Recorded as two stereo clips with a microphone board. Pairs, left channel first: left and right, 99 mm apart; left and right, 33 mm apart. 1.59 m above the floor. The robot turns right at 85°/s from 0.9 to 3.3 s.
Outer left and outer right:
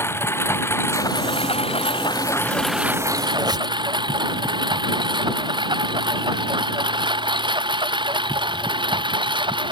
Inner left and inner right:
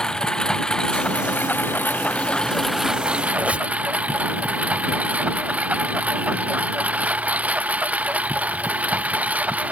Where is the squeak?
50° right (ahead or behind).